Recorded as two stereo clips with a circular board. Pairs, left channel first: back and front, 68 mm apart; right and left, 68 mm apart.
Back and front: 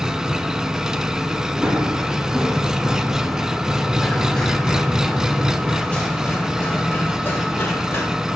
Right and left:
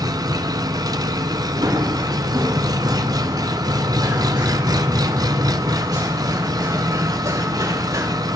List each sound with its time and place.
0.0 s an engine running: 80° left, 0.9 m
1.6 s running footsteps: 70° left, 3.5 m; by 8.1 s 120° left, 5 m